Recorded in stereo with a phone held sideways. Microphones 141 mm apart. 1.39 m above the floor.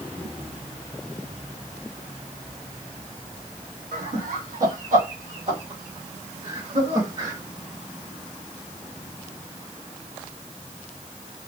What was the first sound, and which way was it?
Laughter, 80° right.